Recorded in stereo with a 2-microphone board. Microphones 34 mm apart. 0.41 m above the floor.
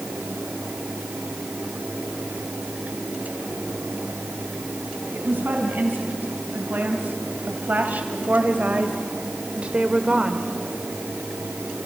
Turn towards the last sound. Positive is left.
turn(degrees=-20)  # may be behind; listen again after turning